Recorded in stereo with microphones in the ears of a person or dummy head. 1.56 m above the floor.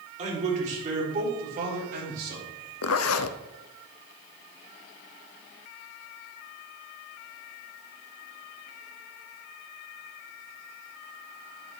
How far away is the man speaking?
About 3.5 m.